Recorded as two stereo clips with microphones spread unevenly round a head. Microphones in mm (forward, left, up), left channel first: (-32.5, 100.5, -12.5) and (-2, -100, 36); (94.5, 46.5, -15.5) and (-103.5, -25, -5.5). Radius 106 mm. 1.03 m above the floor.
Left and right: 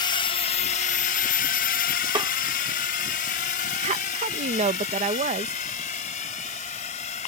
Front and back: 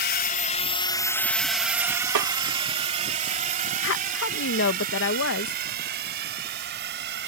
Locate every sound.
0.0 s a drone: 45° left; by 7.3 s 155° left
2.1 s a snare drum: 150° right
3.8 s a woman speaking: 15° right